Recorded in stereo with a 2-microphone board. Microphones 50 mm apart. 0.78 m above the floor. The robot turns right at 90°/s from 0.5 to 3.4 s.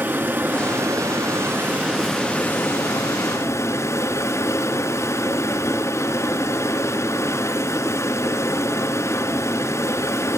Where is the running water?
140° right, 2.0 m; by 10.4 s 120° left, 2.0 m.